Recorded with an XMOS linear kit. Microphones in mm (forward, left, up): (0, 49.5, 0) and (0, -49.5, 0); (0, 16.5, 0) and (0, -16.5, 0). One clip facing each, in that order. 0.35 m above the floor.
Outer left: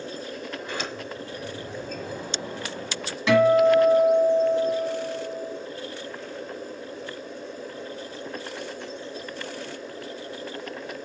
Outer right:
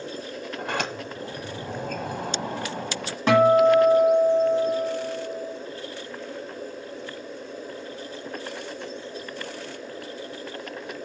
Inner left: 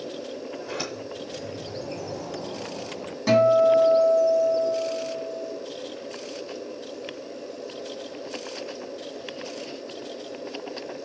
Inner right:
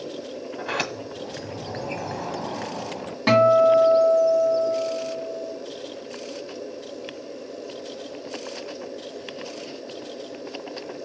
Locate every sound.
0.6 s a sliding door: 65° right (ahead or behind), 1.4 m
3.3 s a guitar: 45° right (ahead or behind), 2 m